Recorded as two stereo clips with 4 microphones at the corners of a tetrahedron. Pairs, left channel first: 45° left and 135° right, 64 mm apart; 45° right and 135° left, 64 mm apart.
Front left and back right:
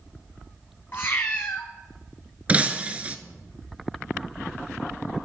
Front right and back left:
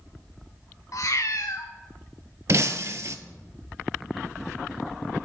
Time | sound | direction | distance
0.9 | a cat meowing | 10° right | 1.2 m
2.5 | breaking glass | 160° left | 0.6 m